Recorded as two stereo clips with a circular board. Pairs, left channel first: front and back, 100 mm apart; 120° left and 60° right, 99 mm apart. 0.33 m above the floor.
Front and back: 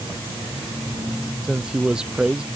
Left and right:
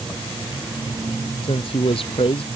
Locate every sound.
1.4 s a man speaking: 100° left